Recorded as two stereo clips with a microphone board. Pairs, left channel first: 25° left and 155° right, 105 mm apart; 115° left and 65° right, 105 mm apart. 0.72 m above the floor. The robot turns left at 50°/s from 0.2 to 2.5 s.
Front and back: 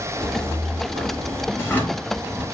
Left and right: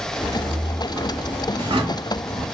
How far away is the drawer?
About 0.9 m.